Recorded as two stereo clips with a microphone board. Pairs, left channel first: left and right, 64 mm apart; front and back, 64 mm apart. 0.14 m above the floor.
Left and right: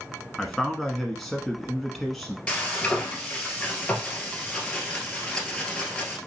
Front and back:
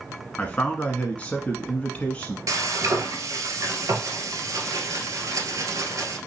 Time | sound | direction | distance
0.4 | a man speaking | 5° left | 1.0 m
2.5 | frying | 165° left | 1.5 m